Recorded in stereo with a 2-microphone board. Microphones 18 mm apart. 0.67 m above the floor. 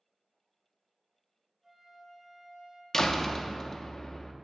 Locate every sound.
1.6 s a flute: 20° right (ahead or behind), 2.5 m
2.9 s a door slam: 35° left (ahead or behind), 0.7 m